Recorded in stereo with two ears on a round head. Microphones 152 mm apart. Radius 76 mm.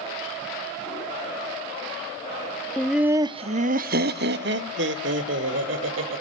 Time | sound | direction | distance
2.8 | laughter | 10° left (ahead or behind) | 0.6 m